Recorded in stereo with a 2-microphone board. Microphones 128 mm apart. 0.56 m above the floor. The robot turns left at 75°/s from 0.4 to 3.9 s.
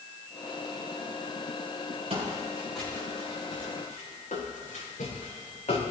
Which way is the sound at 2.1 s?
50° right (ahead or behind).